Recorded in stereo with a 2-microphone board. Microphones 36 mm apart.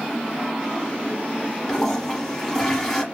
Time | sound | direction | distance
1.7 | a toilet flushing | 10° left (ahead or behind) | 0.9 m